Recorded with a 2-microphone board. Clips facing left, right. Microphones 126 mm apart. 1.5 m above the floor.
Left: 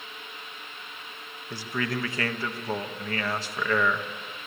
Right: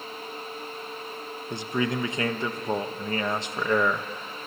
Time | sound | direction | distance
1.5 | a man speaking | 20° right (ahead or behind) | 1.0 m